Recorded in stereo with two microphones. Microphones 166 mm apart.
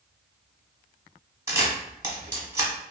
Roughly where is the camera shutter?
Centre.